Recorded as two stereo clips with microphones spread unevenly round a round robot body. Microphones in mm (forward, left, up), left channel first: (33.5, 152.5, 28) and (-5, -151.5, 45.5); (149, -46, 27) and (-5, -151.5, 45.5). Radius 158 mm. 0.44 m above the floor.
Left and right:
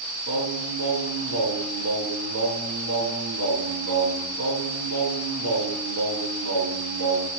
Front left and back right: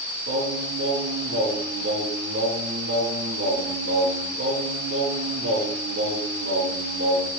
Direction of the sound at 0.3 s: 135° right.